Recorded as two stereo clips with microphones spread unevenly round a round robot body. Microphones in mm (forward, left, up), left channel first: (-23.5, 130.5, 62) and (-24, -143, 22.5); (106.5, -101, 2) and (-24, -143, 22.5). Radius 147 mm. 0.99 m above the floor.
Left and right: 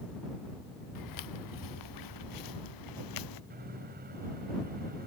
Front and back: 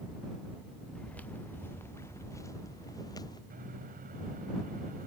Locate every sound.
0.9 s footsteps: 105° left; by 3.4 s 95° left
3.5 s a microwave: 150° right